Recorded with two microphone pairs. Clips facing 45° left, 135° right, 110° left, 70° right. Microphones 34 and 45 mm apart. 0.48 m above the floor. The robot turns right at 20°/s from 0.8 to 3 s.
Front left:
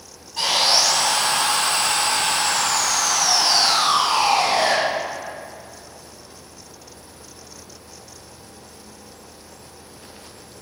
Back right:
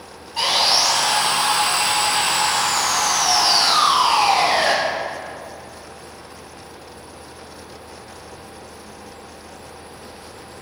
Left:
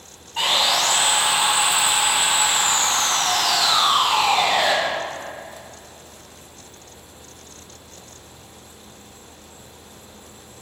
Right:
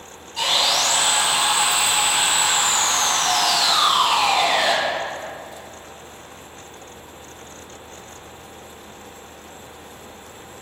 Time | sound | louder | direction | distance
0.4 | sawing | back right 1 dB, left 1 dB | 165° left | 2.5 m